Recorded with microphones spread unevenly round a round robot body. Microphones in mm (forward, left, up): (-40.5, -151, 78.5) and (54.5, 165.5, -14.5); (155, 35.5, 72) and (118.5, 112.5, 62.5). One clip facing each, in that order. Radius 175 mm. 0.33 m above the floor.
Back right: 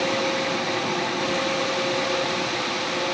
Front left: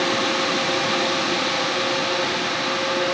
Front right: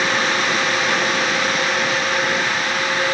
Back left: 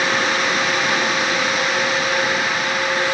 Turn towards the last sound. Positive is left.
No sound to turn to.